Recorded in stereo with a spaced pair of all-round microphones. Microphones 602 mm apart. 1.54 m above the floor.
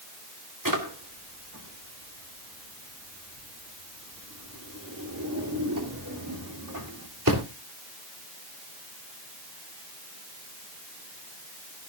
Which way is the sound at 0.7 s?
30° right (ahead or behind).